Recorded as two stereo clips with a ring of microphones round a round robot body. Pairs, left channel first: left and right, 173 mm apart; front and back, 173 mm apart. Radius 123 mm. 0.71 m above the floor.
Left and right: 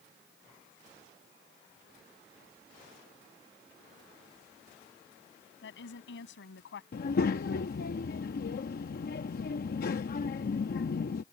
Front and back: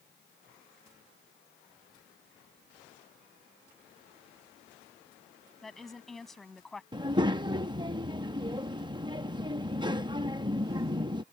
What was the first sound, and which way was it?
A woman speaking, 90° left.